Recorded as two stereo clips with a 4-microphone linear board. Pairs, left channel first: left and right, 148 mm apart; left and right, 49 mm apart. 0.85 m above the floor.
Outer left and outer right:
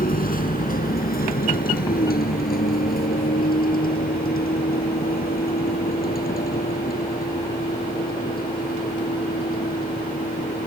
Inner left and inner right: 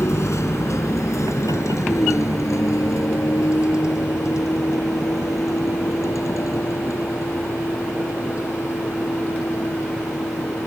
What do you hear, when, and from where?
0.0 s a vehicle: 75° left (ahead or behind); by 10.7 s 80° left